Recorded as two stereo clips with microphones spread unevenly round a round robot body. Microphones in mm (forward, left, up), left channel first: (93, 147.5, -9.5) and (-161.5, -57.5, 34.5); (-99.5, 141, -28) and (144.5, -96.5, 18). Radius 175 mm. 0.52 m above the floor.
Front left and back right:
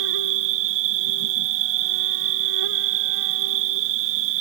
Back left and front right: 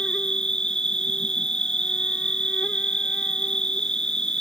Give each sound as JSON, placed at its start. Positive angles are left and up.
{"t": 0.0, "sound": "an insect", "azimuth_deg": -135}